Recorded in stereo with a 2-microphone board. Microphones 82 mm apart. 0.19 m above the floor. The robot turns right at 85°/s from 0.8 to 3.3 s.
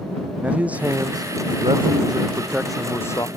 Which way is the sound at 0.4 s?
165° right.